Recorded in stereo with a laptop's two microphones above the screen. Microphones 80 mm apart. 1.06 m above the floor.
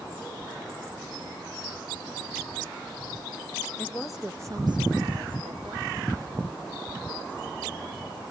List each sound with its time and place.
3.8 s a woman speaking: 20° left (ahead or behind), 1.0 m; by 8.3 s 75° right (ahead or behind), 5 m